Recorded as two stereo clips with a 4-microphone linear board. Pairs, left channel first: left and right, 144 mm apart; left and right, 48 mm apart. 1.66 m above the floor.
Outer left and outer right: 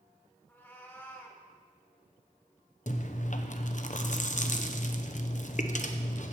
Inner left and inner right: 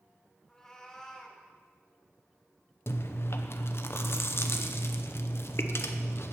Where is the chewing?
60° left (ahead or behind), 0.7 m.